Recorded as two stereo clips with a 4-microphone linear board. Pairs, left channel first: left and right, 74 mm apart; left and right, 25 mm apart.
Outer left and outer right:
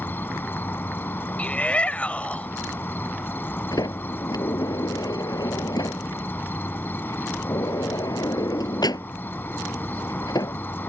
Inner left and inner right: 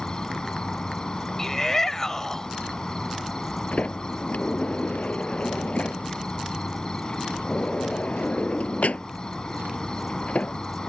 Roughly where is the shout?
Centre.